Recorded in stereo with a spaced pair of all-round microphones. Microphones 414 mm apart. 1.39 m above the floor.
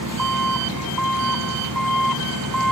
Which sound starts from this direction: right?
An engine running, at 0.0 s.